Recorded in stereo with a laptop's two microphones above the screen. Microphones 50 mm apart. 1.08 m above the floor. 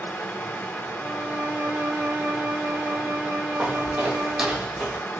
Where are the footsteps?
25° right (ahead or behind), 1.6 m; by 5.0 s 10° left (ahead or behind), 1.7 m.